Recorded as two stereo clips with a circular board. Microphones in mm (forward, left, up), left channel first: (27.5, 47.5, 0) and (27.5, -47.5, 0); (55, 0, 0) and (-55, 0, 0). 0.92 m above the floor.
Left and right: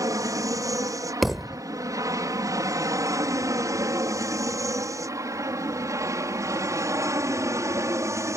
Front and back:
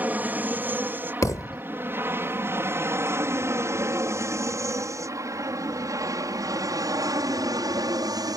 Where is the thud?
Straight ahead.